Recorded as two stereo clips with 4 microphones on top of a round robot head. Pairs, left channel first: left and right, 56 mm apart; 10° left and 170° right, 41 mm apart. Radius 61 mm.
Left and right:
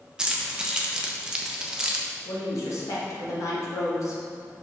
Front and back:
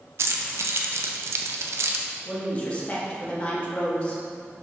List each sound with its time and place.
0.2 s keys jangling: 170° right, 0.6 m
2.2 s a woman speaking: 70° left, 1.9 m